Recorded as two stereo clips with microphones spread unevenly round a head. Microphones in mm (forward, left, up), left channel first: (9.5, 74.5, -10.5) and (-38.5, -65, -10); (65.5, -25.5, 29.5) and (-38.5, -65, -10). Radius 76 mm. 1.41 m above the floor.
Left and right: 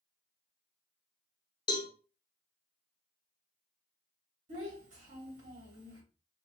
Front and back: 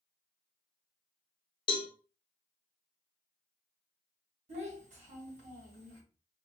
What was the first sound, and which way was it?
A cowbell, 10° left.